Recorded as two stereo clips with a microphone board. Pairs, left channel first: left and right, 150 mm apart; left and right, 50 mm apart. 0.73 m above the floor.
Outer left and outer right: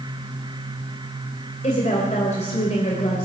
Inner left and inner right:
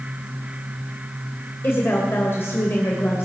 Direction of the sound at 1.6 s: 50° left (ahead or behind).